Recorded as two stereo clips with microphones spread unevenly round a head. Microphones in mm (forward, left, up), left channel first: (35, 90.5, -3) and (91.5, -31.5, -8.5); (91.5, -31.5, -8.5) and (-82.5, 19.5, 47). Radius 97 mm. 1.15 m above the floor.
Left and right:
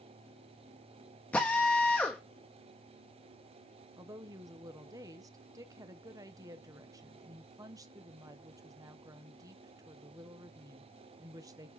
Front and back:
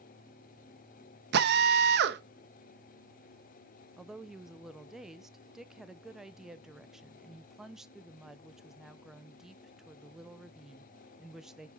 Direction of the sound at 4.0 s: 70° right.